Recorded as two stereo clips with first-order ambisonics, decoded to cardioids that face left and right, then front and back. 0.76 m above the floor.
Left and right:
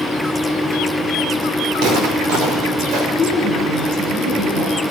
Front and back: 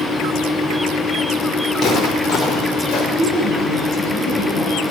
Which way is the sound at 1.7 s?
80° right.